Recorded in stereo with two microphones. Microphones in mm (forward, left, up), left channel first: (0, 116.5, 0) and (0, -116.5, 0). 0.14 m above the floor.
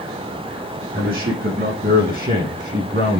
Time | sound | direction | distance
0.9 | a man speaking | 40° right (ahead or behind) | 6.5 m